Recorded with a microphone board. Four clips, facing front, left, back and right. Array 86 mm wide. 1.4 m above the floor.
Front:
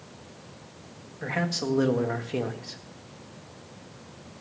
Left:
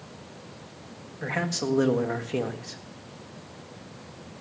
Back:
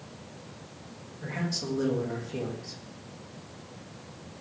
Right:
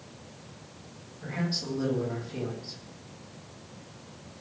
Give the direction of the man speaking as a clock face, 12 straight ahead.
10 o'clock.